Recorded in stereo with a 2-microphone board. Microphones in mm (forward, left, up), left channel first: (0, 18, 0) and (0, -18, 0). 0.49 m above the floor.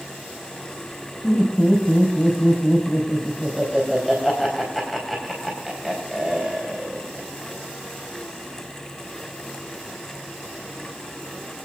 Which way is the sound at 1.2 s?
5° right (ahead or behind).